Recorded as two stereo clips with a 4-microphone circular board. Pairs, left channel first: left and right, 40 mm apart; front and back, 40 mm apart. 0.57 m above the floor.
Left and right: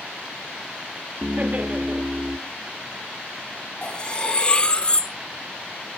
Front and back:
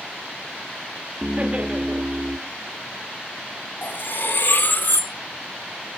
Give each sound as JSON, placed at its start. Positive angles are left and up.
{"t": 1.2, "sound": "laughter", "azimuth_deg": -130, "distance_m": 1.1}
{"t": 3.8, "sound": "cutlery clinking", "azimuth_deg": 30, "distance_m": 0.8}